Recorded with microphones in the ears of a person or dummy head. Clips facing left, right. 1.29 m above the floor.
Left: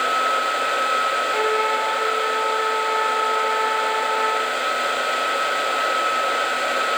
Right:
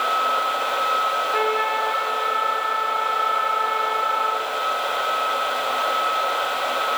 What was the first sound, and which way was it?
A trumpet, 5° right (ahead or behind).